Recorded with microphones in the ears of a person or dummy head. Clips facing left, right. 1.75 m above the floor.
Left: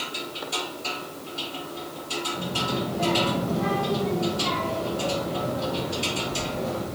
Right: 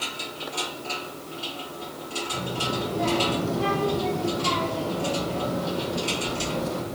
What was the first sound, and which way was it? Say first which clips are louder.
A child speaking: even; 45° right (ahead or behind).